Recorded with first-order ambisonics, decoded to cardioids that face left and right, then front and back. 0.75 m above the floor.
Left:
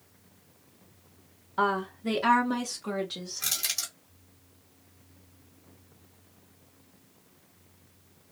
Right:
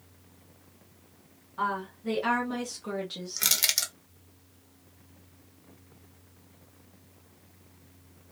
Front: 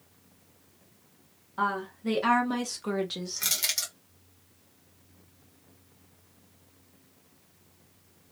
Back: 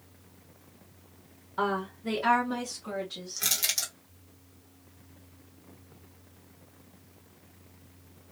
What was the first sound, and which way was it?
A woman speaking, 105° left.